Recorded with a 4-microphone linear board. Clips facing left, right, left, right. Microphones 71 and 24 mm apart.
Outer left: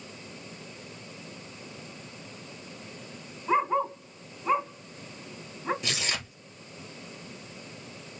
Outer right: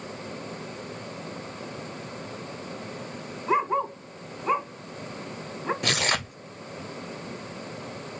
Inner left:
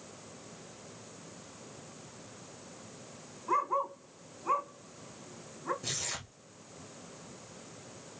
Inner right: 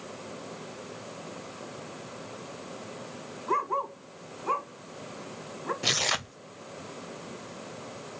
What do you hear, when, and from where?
3.5 s a dog barking: 10° right (ahead or behind), 1.8 m
5.8 s tearing paper: 50° right (ahead or behind), 0.5 m